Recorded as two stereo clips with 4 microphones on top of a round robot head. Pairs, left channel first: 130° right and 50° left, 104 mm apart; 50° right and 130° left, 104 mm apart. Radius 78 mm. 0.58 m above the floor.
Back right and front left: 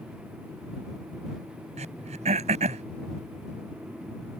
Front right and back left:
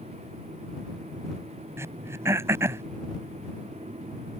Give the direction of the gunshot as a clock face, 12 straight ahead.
I don't hear a gunshot.